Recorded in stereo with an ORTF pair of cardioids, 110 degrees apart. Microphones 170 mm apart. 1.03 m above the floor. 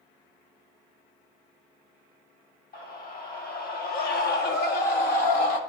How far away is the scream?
About 3.5 m.